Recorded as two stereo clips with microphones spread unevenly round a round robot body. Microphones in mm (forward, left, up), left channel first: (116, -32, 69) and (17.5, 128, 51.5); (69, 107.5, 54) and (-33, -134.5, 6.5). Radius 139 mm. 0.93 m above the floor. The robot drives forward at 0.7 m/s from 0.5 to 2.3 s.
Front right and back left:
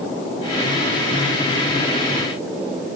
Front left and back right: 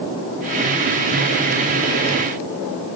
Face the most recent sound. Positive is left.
No sound to turn to.